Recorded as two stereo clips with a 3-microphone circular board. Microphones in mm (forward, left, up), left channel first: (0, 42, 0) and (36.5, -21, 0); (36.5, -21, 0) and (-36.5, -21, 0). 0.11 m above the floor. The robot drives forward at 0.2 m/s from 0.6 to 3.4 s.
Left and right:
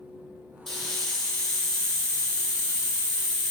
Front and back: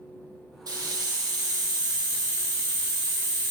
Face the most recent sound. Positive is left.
turn(degrees=-165)